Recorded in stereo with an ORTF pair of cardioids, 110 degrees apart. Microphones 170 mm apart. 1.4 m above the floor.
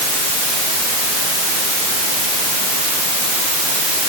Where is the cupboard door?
I don't hear a cupboard door.